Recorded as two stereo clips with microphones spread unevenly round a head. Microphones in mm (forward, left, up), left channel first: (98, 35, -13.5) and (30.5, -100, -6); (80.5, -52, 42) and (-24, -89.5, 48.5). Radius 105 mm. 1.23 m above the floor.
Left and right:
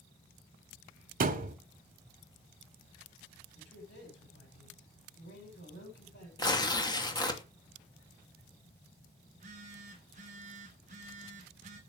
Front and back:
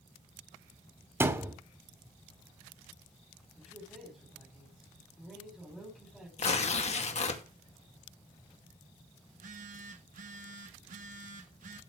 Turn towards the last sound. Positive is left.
turn(degrees=-175)